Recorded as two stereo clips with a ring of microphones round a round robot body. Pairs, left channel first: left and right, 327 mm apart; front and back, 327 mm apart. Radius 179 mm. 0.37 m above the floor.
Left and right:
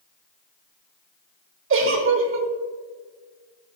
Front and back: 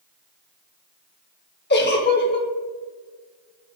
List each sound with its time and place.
1.7 s a giggle: 50° right, 0.8 m